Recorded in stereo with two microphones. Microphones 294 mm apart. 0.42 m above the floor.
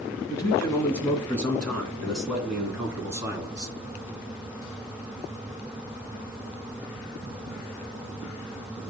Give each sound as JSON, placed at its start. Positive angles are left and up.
{"t": 0.3, "sound": "a man speaking", "side_deg": 10, "distance_m": 5.0}